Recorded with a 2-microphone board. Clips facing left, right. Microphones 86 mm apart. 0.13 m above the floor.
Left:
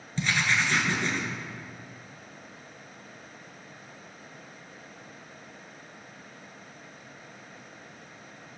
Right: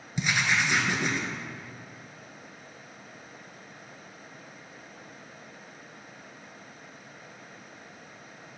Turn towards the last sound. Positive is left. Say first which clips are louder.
# even
turn(degrees=-15)  # may be behind; listen again after turning